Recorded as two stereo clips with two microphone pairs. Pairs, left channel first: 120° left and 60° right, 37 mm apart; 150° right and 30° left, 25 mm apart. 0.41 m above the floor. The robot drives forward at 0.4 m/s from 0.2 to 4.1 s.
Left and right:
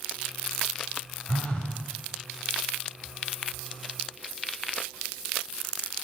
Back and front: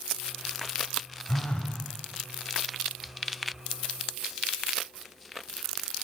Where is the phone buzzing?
165° left, 0.7 m.